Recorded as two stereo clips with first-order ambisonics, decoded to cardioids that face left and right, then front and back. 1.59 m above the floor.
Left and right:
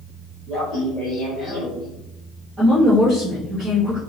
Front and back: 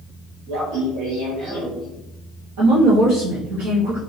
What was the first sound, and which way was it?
Laughter, straight behind.